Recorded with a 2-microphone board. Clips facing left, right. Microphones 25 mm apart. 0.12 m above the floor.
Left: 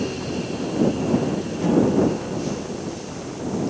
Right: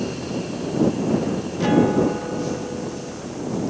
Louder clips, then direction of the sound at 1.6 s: Right 1 dB; 35° right (ahead or behind).